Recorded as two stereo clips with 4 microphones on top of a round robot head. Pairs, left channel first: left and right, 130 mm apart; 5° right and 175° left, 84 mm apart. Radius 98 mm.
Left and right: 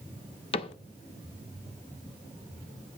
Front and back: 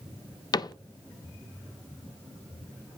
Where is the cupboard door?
40° left, 0.5 m.